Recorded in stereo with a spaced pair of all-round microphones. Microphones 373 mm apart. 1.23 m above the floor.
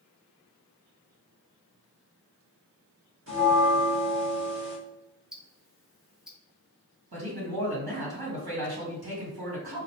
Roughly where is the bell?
Right.